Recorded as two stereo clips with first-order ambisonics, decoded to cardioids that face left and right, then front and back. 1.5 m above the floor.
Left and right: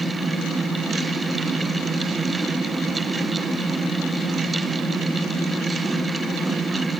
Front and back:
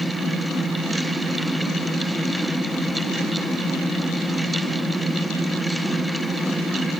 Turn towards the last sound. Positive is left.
No sound to turn to.